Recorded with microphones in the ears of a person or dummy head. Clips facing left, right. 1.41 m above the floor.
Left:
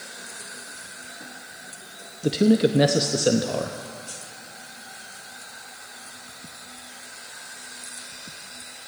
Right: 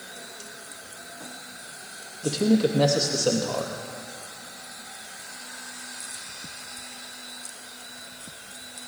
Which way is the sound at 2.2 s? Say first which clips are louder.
Left 3 dB; 25° left (ahead or behind).